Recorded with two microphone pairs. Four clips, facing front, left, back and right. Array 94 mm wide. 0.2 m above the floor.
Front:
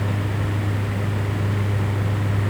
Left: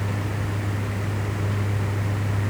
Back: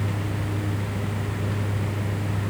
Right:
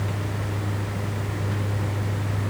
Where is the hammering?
No hammering in this recording.